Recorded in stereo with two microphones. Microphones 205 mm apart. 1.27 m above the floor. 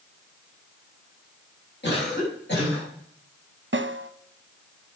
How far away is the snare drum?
About 0.8 m.